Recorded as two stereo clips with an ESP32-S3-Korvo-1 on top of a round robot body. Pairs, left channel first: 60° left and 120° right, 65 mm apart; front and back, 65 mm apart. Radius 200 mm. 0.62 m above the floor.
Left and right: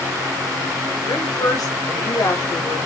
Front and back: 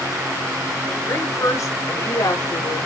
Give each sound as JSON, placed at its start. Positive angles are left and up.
{"t": 1.1, "sound": "a woman speaking", "azimuth_deg": 45, "distance_m": 4.5}